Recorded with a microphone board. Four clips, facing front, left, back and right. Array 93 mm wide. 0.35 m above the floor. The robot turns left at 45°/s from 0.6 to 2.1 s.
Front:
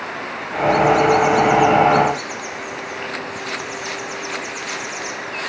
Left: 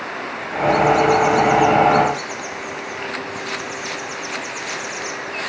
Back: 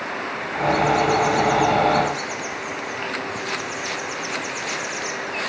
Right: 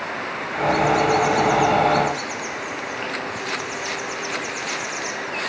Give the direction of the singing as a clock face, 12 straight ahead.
No singing in this recording.